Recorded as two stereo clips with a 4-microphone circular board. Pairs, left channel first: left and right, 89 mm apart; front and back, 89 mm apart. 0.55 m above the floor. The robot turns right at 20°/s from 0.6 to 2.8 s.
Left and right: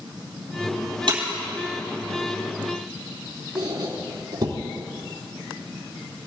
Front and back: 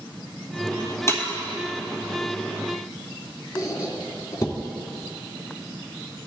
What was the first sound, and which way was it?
Breaking glass, 60° right.